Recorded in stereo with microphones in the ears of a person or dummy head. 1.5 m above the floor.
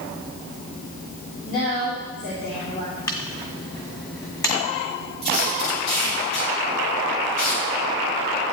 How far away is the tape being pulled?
About 5.5 m.